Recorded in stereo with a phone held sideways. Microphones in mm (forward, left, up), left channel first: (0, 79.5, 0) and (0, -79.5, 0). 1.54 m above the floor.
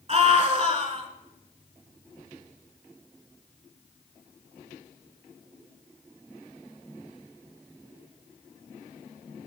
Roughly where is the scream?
Right.